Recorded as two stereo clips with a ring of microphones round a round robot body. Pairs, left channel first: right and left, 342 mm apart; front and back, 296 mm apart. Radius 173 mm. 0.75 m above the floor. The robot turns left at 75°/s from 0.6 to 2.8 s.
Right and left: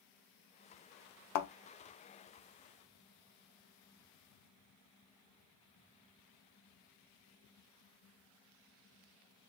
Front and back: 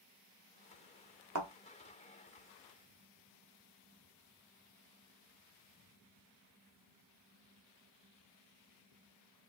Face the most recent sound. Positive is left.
turn(degrees=125)